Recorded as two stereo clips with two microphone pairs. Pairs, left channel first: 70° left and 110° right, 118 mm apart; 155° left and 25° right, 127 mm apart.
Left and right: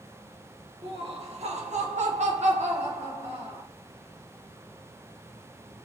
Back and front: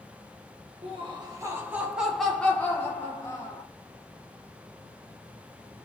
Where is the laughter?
70° right, 0.9 m; by 3.6 s 145° right, 1.4 m.